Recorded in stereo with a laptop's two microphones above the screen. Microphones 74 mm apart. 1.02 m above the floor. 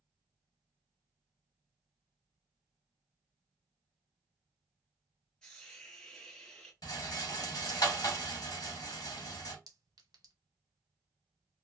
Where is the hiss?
10° left (ahead or behind), 1.0 m.